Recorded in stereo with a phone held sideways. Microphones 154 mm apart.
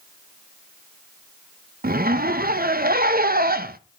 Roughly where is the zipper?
Right.